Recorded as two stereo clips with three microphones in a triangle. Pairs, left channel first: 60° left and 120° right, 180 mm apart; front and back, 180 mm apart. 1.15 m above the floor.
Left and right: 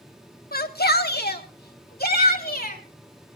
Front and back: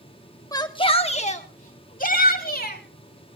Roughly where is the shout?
Ahead left.